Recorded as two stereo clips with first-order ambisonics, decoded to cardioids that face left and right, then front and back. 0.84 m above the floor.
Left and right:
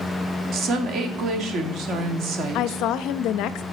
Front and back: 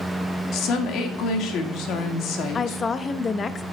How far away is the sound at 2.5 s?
About 0.6 m.